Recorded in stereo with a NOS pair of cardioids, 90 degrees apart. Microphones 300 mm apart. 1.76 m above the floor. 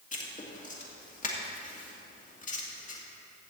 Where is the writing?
25° left, 2.5 m.